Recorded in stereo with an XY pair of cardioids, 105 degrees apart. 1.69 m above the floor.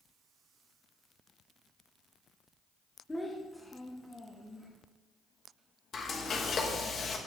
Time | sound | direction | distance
3.1 | a child speaking | 15° left | 1.6 m
5.9 | frying | 50° left | 2.5 m